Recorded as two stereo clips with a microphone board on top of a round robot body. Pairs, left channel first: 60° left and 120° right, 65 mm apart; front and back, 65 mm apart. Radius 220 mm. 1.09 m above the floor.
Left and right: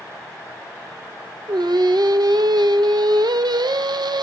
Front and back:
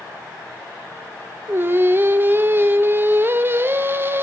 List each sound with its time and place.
1.5 s singing: 125° right, 1.8 m